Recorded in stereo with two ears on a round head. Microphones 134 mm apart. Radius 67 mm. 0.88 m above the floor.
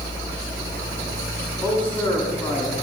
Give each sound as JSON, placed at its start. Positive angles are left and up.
{"t": 1.6, "sound": "a man speaking", "side_deg": 10, "distance_m": 7.5}